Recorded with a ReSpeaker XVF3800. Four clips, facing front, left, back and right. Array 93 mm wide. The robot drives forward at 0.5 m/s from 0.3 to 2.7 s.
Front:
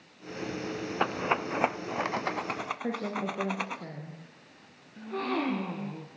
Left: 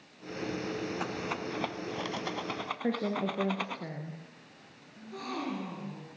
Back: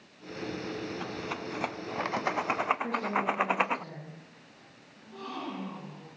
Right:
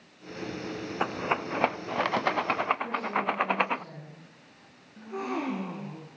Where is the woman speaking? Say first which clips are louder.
Right 2 dB, back 3 dB; 65° left, 3.5 m.